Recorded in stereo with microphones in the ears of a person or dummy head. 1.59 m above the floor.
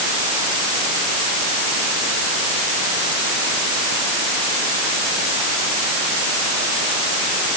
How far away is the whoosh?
I don't hear a whoosh.